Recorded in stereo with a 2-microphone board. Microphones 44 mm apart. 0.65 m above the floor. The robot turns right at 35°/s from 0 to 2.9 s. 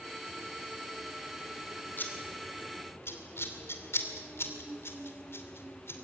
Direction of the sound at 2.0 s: 45° left (ahead or behind).